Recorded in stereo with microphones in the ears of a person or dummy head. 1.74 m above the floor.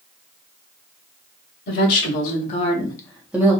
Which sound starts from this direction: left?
A woman speaking, at 1.7 s.